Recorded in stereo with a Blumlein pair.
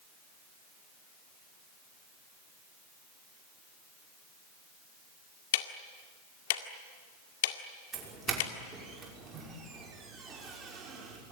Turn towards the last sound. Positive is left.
turn(degrees=-20)